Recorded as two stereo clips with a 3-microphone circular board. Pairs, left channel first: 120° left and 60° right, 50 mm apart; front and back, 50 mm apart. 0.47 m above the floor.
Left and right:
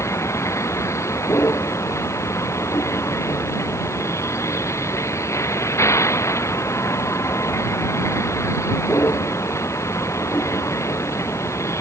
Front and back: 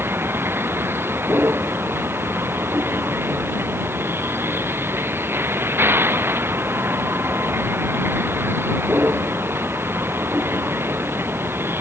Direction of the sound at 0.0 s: 140° left.